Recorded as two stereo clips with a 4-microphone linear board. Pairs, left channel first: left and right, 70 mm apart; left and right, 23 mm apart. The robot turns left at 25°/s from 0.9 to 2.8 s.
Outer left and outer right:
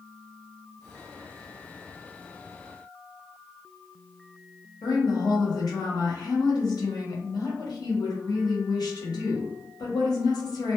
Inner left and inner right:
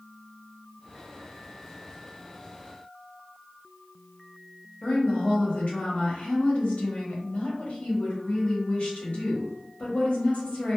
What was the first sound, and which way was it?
A woman speaking, 70° left (ahead or behind).